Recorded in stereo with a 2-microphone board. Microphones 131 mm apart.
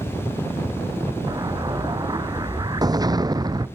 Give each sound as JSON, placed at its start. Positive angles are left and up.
{"t": 1.3, "sound": "an explosion", "side_deg": -30}